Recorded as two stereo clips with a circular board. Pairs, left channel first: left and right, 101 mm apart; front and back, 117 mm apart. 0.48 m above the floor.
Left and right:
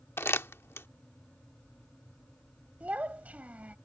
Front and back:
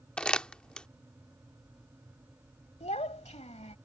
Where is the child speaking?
15° right.